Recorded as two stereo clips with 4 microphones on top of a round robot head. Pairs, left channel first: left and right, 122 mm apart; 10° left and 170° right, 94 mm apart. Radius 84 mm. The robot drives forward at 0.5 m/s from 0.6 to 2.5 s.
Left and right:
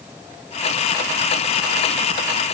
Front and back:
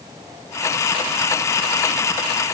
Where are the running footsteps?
I don't hear running footsteps.